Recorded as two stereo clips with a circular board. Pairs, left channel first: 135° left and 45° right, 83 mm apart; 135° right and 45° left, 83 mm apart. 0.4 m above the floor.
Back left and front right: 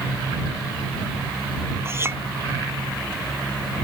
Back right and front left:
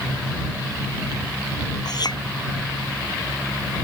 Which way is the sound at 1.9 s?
105° right.